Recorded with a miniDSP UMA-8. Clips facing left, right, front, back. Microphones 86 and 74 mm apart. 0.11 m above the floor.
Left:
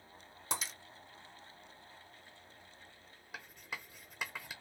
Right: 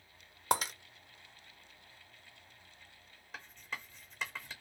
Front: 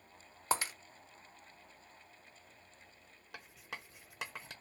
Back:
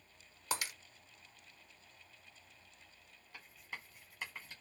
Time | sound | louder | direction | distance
0.5 | breaking glass | right 9 dB, front 5 dB | 60° right | 0.5 m
3.3 | writing | right 1 dB, front 2 dB | 10° left | 0.8 m